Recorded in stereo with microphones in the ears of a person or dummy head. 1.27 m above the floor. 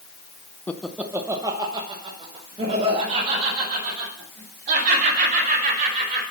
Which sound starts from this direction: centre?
Laughter, at 0.7 s.